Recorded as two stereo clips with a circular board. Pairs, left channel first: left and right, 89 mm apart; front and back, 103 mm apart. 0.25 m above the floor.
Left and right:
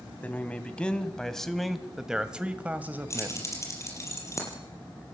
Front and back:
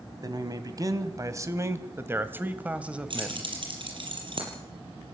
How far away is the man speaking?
About 2.0 m.